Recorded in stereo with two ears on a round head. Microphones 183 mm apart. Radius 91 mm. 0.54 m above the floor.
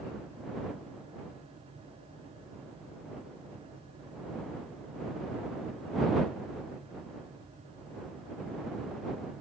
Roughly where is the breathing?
No breathing in this recording.